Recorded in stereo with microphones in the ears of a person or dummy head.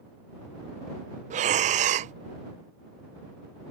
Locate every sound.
1.3 s breathing: 40° right (ahead or behind)